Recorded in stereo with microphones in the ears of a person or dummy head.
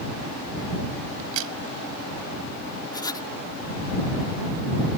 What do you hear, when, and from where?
1.2 s a crack: 80° right
2.9 s writing: 25° left (ahead or behind)